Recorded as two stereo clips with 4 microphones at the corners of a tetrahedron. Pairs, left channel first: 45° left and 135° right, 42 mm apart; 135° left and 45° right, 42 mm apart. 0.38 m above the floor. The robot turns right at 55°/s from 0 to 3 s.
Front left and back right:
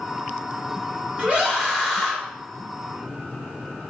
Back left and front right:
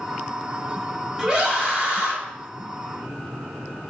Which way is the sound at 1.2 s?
110° right.